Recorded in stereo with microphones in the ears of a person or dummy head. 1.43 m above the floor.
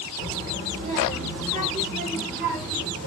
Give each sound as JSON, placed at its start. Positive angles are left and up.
{"t": 0.2, "sound": "a child speaking", "side_deg": -35, "distance_m": 2.0}